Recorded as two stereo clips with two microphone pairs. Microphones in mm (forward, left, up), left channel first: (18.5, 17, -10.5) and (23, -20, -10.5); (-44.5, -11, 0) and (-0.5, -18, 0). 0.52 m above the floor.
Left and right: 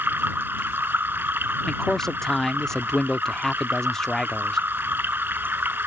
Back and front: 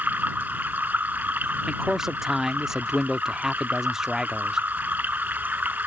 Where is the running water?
60° right.